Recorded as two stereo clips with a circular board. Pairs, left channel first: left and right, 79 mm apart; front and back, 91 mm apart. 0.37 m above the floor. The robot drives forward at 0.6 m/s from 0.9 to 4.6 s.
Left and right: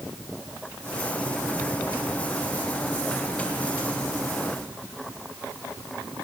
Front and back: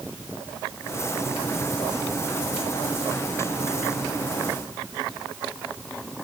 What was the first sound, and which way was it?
Only background noise.